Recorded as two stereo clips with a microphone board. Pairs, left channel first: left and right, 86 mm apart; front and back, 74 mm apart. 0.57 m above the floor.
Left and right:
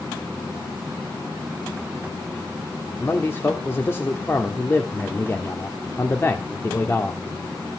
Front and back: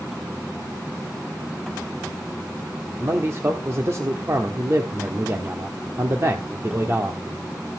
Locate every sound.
3.0 s a man speaking: 145° left, 1.4 m